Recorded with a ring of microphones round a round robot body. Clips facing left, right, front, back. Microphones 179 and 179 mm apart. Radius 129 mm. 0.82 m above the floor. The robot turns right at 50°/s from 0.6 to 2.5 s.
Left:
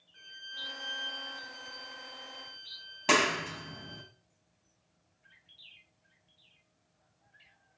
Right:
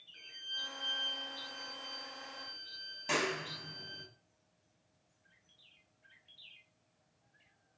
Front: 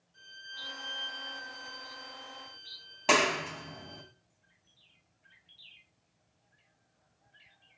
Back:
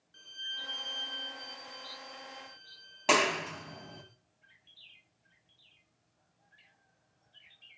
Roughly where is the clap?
Left.